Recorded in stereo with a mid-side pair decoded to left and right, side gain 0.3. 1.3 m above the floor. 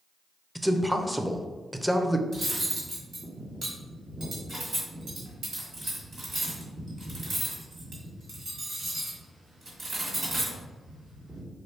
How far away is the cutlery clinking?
About 1.8 m.